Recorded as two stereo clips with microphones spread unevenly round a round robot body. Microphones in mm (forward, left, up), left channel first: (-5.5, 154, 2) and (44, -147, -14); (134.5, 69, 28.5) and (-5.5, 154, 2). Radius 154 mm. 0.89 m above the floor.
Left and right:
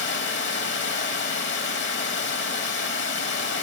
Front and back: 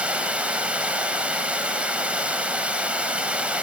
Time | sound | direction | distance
0.0 | running water | 60° left | 1.0 m